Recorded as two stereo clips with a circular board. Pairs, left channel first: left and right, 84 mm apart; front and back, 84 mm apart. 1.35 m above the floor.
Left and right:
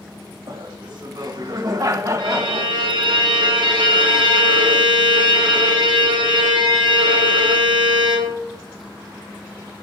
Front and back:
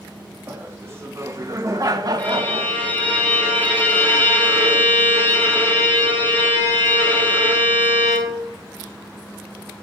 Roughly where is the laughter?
Behind right.